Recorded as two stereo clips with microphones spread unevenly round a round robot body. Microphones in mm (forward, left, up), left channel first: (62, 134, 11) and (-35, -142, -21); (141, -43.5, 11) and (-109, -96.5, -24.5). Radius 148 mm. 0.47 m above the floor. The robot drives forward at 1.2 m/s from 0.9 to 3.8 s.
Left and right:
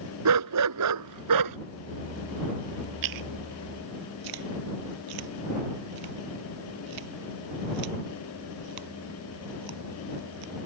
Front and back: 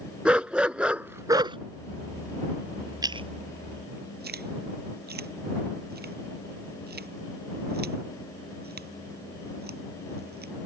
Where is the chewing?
90° right; by 10.5 s 115° right.